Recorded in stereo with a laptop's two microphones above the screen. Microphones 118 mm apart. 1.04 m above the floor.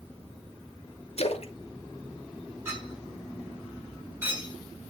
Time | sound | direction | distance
1.2 | a splash | 60° left (ahead or behind) | 1.0 m
2.6 | a clink | 20° right (ahead or behind) | 3 m